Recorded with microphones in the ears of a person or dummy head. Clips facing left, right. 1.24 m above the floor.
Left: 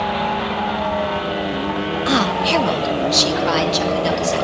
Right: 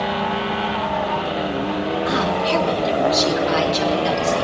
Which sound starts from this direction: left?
A woman speaking, at 2.1 s.